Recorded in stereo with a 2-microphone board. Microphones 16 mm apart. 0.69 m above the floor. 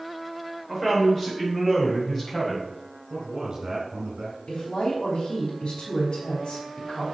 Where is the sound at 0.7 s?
15° left (ahead or behind), 3 m; by 2.7 s 25° left (ahead or behind), 5 m.